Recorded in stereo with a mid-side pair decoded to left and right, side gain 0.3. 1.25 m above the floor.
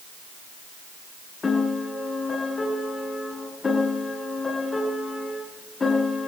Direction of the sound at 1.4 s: 45° left.